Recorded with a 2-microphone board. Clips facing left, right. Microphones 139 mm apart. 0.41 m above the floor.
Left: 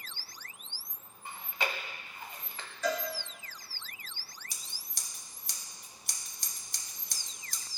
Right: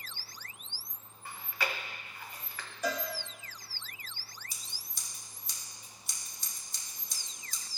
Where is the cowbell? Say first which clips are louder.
Left 2 dB; 15° right (ahead or behind), 1.6 m.